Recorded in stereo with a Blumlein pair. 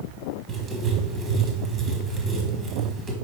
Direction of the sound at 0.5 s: 20° right.